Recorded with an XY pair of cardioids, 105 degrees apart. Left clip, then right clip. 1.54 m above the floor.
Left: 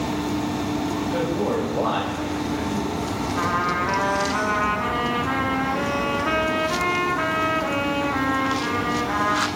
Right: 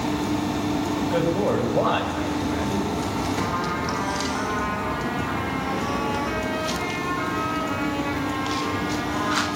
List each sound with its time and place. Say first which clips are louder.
1.0 s a man speaking: right 3 dB; 35° right, 4 m
3.4 s a trumpet: left 3 dB; 70° left, 2.5 m